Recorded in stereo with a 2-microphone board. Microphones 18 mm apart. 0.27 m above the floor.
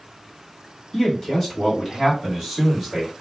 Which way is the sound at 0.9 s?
40° left (ahead or behind).